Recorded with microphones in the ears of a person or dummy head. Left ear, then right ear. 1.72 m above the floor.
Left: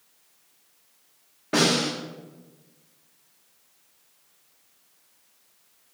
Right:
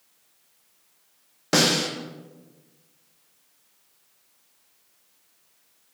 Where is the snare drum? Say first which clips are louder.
Right 1 dB; 80° right, 0.6 m.